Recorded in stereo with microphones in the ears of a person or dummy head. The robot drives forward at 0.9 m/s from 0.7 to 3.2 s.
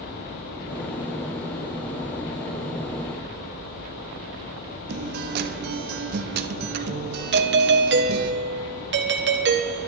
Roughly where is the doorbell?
Right.